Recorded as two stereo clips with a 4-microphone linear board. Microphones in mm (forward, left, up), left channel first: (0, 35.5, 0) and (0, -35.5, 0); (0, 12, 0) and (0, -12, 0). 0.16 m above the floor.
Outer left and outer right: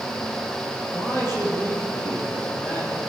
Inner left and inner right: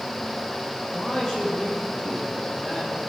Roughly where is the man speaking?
Left.